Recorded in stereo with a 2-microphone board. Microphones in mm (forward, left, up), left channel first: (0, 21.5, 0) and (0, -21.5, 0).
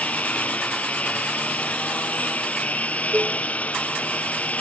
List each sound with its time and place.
0.0 s a lawn mower: 40° left (ahead or behind)
3.1 s dishes clattering: 80° right